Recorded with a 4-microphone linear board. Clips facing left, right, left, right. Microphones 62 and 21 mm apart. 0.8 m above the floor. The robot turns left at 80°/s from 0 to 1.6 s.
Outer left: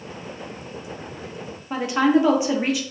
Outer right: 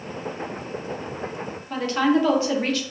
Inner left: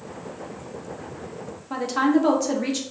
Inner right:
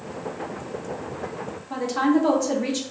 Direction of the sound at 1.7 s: 15° left (ahead or behind).